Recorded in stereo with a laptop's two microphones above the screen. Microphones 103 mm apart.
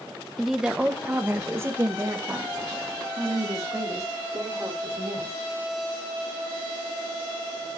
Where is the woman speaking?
Centre (ahead or behind), 0.7 m; by 5.4 s 40° right (ahead or behind), 4 m.